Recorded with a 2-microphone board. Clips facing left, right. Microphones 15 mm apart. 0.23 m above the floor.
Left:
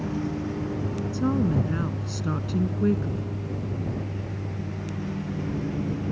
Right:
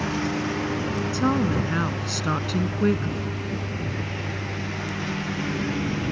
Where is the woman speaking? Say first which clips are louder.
Right 1 dB; 40° right (ahead or behind).